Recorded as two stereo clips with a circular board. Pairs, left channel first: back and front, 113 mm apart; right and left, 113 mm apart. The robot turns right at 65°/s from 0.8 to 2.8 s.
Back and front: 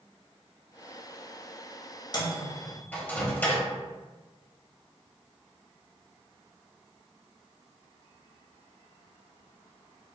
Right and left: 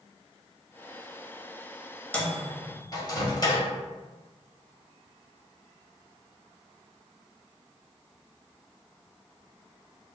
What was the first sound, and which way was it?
A microwave, 160° right.